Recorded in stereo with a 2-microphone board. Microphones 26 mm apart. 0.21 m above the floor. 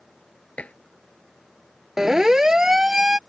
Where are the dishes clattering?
70° left (ahead or behind).